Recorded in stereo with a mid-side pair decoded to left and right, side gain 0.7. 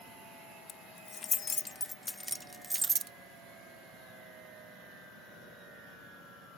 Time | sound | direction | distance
0.7 | keys jangling | 40° left | ?